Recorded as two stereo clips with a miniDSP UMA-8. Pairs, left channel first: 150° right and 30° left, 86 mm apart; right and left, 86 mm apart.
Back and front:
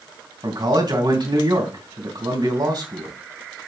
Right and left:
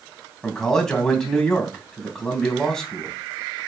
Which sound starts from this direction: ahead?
A man speaking, at 0.4 s.